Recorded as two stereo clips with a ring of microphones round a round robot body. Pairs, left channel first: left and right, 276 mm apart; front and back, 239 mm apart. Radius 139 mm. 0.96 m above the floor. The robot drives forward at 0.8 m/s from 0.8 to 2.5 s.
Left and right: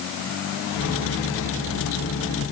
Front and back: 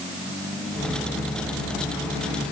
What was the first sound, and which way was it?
Only background noise.